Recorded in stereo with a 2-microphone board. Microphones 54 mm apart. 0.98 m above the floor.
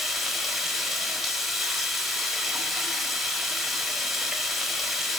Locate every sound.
0.0 s running water: centre (ahead or behind), 1.1 m